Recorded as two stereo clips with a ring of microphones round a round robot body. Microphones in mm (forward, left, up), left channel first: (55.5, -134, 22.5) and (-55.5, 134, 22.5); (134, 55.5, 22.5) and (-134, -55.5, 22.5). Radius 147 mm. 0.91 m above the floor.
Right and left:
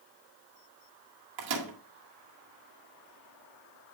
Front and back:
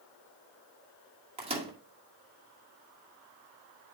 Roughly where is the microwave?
Behind left.